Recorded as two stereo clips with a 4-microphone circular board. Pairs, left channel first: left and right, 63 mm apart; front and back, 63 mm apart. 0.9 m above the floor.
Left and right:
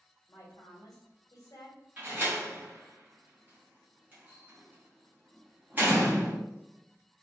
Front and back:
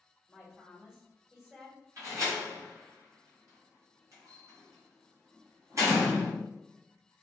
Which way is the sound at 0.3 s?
100° left.